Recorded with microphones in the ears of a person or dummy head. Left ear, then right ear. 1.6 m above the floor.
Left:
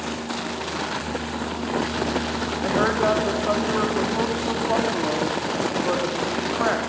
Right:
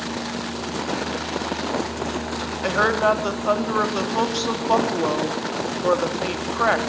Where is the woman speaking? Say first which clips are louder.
Right 2 dB; 70° right (ahead or behind), 3.5 m.